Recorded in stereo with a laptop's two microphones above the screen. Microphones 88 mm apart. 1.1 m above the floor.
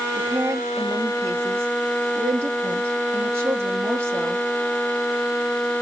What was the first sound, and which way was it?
A woman speaking, 30° right (ahead or behind).